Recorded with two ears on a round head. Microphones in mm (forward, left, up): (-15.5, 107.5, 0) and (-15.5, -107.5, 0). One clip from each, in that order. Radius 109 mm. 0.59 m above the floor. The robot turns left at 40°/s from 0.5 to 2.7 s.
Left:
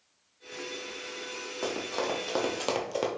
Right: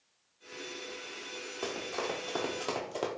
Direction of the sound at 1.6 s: Centre (ahead or behind).